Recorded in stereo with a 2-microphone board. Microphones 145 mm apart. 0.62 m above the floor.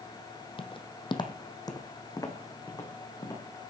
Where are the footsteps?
35° left (ahead or behind), 1.2 m; by 3.4 s 20° left (ahead or behind), 3 m.